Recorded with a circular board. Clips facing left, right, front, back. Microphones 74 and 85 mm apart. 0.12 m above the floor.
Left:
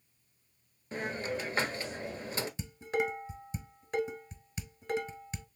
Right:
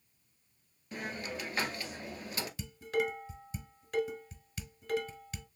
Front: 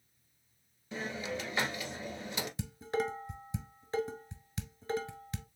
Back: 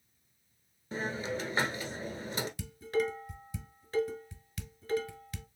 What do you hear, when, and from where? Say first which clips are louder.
0.9 s a hiss: left 5 dB, back 3 dB; 140° left, 1.0 m
2.6 s dishes clattering: right 1 dB, back 3 dB; 40° left, 1.1 m